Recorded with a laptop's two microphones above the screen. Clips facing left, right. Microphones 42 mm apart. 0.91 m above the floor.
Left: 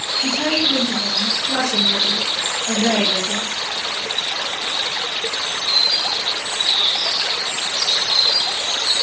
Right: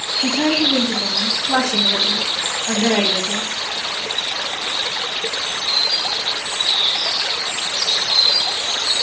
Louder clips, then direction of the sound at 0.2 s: Right 3 dB; 50° right (ahead or behind).